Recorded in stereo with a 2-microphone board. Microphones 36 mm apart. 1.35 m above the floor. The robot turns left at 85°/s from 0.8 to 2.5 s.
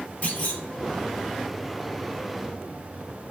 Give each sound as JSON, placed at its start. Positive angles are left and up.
{"t": 0.2, "sound": "a clunk", "side_deg": 40, "distance_m": 1.5}